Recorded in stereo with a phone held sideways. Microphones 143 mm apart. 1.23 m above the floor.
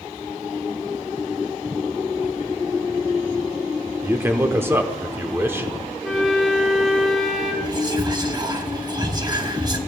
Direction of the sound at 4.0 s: 15° right (ahead or behind).